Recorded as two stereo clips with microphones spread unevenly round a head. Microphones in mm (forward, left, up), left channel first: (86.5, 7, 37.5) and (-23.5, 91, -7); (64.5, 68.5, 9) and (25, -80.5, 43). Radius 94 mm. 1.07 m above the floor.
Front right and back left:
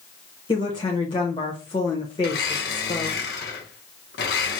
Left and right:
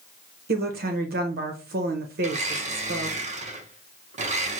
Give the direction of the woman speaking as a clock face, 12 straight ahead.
4 o'clock.